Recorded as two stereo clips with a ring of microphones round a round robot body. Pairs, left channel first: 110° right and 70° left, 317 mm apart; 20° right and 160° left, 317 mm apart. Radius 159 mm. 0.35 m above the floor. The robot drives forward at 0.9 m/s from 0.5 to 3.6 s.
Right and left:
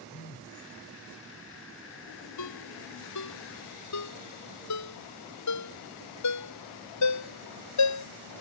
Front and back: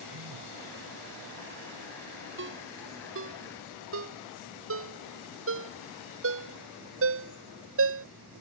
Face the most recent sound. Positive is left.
turn(degrees=-150)